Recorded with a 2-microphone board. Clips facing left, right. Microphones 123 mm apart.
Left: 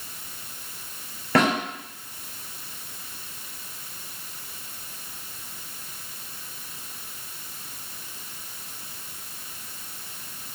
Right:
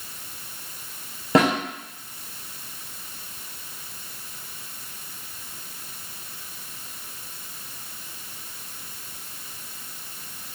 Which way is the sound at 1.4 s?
20° right (ahead or behind).